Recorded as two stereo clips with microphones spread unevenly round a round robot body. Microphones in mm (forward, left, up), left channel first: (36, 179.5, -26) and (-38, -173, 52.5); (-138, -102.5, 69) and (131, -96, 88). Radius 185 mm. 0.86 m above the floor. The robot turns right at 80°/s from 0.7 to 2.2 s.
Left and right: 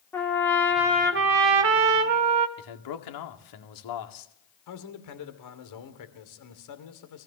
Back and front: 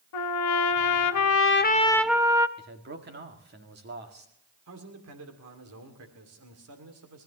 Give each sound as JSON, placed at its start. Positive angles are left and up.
{"t": 0.1, "sound": "a trumpet", "azimuth_deg": 165, "distance_m": 1.0}
{"t": 2.6, "sound": "a man speaking", "azimuth_deg": 60, "distance_m": 2.0}
{"t": 4.7, "sound": "a man speaking", "azimuth_deg": 45, "distance_m": 2.5}